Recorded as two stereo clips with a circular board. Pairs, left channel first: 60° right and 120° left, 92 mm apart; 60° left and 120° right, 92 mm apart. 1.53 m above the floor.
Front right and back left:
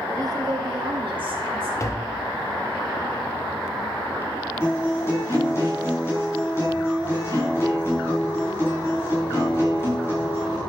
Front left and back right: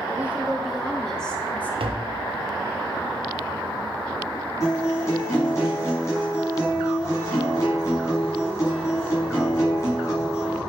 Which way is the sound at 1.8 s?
115° right.